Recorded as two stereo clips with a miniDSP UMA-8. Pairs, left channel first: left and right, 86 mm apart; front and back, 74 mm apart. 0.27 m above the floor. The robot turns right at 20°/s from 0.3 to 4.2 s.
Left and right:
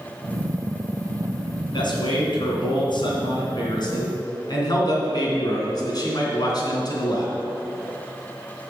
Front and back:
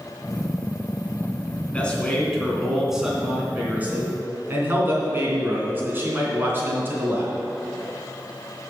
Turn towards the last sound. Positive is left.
turn(degrees=120)